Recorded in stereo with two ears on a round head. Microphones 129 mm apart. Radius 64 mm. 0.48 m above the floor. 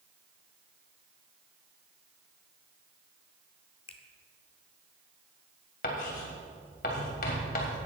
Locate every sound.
3.9 s a finger snap: 45° left (ahead or behind), 1.2 m
5.8 s writing: 70° left (ahead or behind), 3 m